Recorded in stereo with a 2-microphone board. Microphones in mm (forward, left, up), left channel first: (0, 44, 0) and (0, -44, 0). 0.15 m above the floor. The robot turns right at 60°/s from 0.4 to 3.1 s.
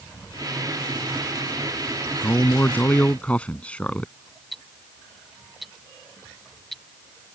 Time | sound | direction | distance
2.2 | a man speaking | 25° left (ahead or behind) | ?
4.5 | ticking | centre (ahead or behind) | ?